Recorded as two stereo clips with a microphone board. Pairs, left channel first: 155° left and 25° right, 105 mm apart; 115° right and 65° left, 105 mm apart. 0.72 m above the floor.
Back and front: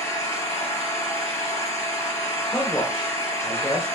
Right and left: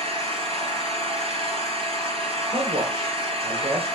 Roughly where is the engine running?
Left.